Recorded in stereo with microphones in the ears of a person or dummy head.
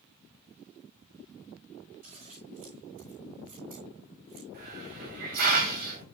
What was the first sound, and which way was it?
Scissors, 40° right (ahead or behind).